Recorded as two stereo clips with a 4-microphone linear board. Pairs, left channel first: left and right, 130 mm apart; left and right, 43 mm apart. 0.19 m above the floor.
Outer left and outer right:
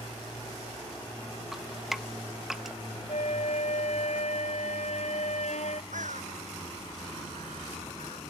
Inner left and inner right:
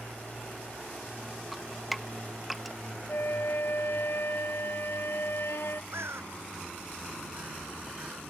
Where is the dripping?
5° right (ahead or behind).